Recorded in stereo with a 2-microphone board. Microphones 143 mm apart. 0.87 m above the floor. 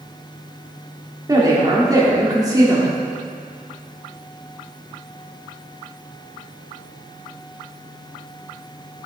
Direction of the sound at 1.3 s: 25° right (ahead or behind).